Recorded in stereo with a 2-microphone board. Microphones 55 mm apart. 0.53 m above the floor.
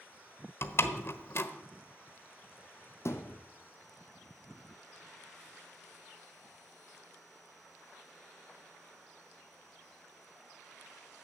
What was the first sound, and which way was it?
A door slam, 50° left (ahead or behind).